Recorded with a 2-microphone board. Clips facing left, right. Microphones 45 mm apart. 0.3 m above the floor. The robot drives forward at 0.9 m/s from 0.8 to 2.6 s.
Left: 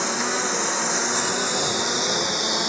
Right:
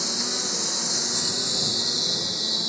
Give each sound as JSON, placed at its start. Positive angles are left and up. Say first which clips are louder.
{"t": 0.0, "sound": "a lawn mower", "louder": "left 7 dB", "side_deg": 45}